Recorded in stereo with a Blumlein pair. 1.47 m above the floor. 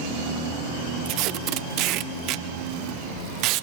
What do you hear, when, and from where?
1.1 s tape being pulled: 40° right, 0.6 m